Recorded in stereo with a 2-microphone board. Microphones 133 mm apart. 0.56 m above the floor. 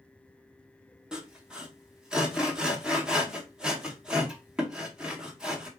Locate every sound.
1.1 s sawing: 5° right (ahead or behind), 1.0 m